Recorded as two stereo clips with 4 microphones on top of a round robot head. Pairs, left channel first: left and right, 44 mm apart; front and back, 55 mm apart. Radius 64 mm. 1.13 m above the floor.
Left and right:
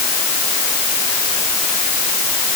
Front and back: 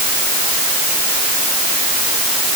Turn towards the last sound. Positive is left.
No sound to turn to.